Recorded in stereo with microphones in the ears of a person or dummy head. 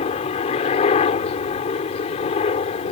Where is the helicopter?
35° left (ahead or behind).